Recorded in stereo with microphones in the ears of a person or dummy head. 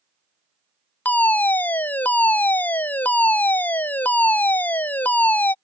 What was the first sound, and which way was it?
A fire alarm, 15° left (ahead or behind).